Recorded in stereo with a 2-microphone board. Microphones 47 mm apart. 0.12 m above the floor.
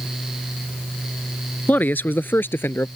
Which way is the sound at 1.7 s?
40° left (ahead or behind).